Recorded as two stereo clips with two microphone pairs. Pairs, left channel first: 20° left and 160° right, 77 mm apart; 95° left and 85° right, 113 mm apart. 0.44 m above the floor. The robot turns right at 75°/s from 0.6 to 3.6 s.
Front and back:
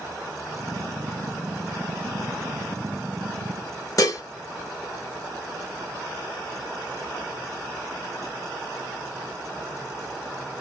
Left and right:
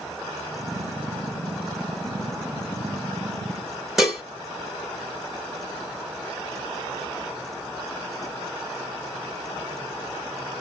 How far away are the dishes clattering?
About 1.0 m.